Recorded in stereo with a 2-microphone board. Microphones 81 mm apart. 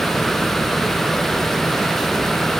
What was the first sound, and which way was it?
Only background noise.